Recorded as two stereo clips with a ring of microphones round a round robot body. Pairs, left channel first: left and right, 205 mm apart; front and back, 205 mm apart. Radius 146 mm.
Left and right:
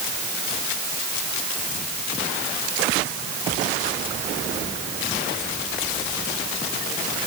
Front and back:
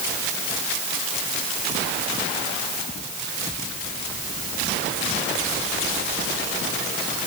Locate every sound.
Only background noise.